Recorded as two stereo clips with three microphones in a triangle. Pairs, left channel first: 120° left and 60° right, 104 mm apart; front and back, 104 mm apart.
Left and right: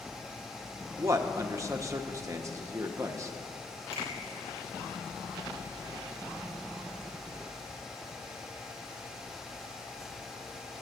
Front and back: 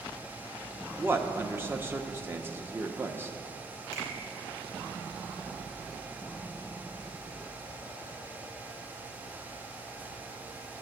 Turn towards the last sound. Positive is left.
turn(degrees=115)